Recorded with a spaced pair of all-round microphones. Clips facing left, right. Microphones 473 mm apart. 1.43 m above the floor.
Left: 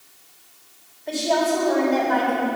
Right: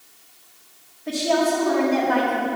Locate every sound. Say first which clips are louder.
1.1 s a woman speaking: right 1 dB; 75° right (ahead or behind), 3 m